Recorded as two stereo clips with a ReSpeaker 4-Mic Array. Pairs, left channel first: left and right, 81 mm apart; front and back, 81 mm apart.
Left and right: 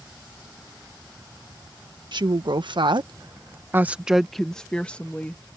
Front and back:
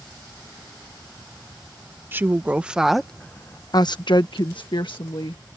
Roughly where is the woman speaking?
Behind right.